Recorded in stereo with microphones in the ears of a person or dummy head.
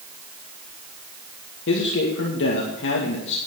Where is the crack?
I don't hear a crack.